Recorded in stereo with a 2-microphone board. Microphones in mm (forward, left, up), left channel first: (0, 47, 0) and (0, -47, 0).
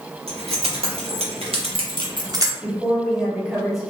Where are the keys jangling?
85° right, 1.5 m; by 2.5 s 35° right (ahead or behind), 0.7 m.